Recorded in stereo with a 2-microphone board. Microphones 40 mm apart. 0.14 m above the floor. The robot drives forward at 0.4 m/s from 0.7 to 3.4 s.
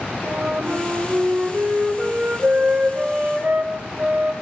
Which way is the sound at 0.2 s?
60° right (ahead or behind).